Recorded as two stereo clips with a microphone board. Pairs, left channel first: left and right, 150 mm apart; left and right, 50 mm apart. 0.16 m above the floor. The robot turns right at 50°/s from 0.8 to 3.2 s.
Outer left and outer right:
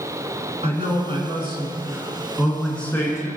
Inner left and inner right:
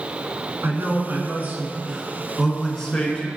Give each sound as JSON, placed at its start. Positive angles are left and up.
{"t": 0.6, "sound": "a man speaking", "azimuth_deg": -90, "distance_m": 1.9}